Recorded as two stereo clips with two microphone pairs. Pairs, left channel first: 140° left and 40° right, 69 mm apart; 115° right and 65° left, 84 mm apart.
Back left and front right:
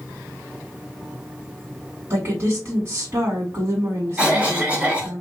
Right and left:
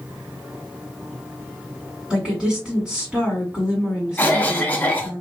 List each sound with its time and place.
2.1 s a woman speaking: 10° right, 1.4 m
4.2 s a cough: 80° right, 1.1 m